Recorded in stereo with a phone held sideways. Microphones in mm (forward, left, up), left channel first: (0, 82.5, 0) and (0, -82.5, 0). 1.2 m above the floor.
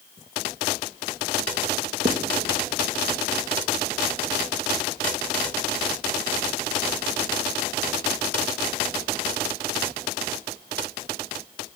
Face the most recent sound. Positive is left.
turn(degrees=-65)  # may be behind; listen again after turning